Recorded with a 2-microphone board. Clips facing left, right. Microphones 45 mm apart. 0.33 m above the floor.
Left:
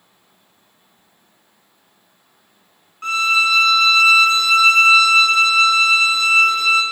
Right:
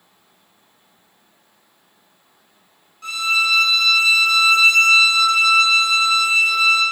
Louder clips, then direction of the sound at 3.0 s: Left 3 dB; 45° left (ahead or behind).